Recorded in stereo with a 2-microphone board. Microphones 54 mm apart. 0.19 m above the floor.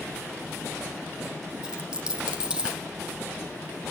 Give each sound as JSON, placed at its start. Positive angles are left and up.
{"t": 1.6, "sound": "a dropped coin", "side_deg": -15, "distance_m": 4.0}